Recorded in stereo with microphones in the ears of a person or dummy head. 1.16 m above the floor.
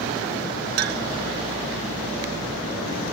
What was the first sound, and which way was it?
A clink, 60° right (ahead or behind).